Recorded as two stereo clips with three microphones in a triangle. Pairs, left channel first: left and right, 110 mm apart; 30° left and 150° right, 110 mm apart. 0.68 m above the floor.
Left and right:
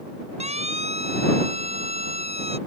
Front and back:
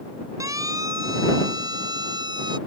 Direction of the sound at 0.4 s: 95° right.